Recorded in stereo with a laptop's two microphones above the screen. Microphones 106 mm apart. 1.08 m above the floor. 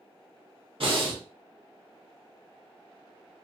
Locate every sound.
0.8 s breathing: 60° right (ahead or behind), 1.3 m